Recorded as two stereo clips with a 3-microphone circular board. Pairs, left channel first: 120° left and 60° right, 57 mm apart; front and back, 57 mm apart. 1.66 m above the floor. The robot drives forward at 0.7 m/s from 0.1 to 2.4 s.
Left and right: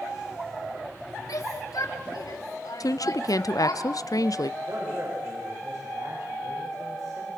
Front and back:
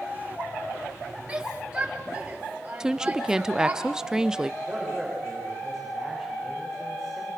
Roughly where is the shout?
Left.